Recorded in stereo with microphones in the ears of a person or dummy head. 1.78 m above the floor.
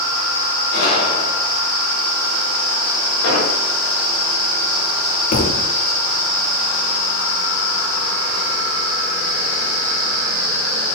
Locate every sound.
0.7 s a gunshot: 60° left (ahead or behind), 5 m
3.2 s an explosion: 85° left, 6.5 m
5.3 s a thud: 55° left (ahead or behind), 2 m